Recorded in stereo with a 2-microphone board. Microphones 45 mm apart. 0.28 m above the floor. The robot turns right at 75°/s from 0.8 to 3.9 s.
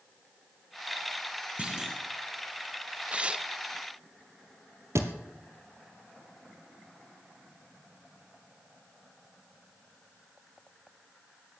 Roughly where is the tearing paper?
Right.